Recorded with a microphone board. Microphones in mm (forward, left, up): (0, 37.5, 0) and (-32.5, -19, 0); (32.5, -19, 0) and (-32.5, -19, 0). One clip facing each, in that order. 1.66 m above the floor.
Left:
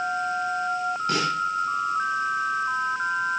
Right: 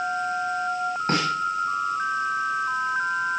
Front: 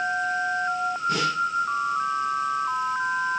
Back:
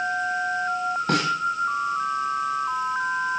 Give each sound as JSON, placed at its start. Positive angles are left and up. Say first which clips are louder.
{"t": 1.1, "sound": "a snare drum", "louder": "right 2 dB, back 2 dB", "azimuth_deg": -165, "distance_m": 8.5}